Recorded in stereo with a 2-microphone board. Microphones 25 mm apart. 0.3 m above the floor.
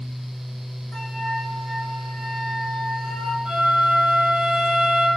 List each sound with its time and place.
0.9 s a flute: 30° left (ahead or behind), 9 m
3.5 s a flute: 30° right (ahead or behind), 6.5 m